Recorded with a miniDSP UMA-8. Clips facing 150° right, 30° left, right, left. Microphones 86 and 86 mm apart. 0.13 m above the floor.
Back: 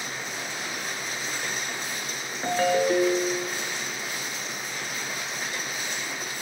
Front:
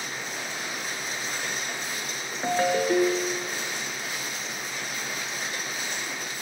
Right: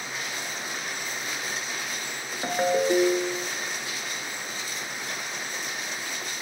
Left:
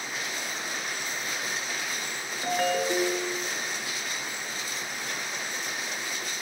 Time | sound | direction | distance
2.4 | a ringtone | 40° right | 1.1 m